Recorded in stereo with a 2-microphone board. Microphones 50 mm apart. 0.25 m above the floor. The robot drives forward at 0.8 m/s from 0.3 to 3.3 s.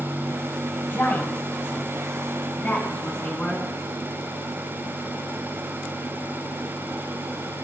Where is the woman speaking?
45° left (ahead or behind), 1.5 m; by 3.7 s 25° left (ahead or behind), 2.5 m.